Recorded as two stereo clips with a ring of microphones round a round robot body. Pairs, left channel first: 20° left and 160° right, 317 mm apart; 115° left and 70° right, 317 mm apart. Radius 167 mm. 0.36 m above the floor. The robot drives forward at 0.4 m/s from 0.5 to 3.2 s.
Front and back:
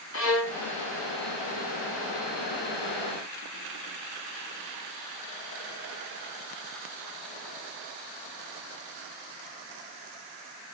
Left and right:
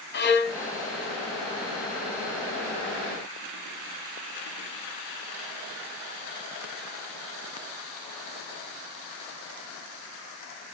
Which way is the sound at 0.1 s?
65° left.